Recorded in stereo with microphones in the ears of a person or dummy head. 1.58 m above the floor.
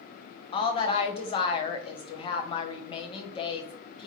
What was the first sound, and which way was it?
A woman speaking, 30° left (ahead or behind).